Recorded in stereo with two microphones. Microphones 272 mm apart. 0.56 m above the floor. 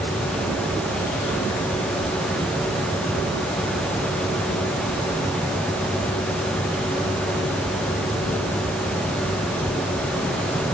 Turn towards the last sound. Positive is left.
No sound to turn to.